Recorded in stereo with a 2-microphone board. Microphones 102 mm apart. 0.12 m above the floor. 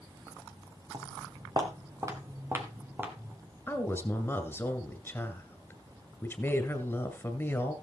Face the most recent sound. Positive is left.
turn(degrees=20)  # may be behind; listen again after turning